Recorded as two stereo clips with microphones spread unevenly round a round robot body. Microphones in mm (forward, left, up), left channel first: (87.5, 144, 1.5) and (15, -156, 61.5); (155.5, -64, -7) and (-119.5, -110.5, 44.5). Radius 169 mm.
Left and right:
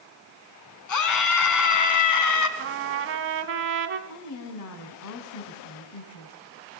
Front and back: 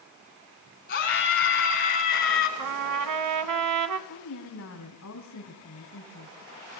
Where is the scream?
70° left, 5.5 m.